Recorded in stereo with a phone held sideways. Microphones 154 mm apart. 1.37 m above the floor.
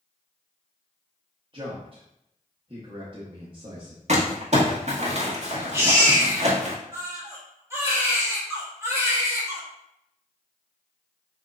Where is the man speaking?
35° right (ahead or behind), 1.1 m.